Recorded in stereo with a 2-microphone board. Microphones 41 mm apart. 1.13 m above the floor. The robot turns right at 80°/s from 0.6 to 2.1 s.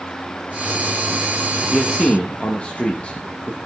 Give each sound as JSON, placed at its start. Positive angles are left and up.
{"t": 1.7, "sound": "a man speaking", "azimuth_deg": 0, "distance_m": 1.0}